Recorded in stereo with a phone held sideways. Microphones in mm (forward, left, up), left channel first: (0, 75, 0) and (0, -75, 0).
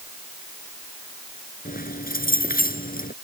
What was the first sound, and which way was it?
Keys jangling, 75° left (ahead or behind).